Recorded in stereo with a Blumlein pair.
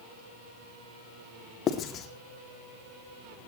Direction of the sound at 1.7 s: 30° left.